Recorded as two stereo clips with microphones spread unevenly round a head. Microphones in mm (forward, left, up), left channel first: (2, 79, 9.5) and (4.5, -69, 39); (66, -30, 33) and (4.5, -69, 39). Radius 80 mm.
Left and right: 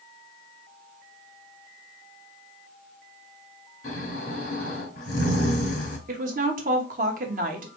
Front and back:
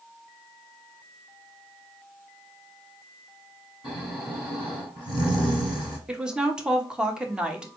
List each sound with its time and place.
3.8 s snoring: 135° left, 2.5 m
6.1 s a woman speaking: 70° right, 0.9 m